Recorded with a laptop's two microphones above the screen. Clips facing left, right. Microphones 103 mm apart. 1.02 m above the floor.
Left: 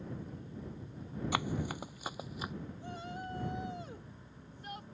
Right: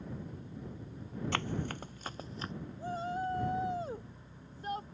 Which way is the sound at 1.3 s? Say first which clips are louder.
Left 2 dB; 10° left (ahead or behind).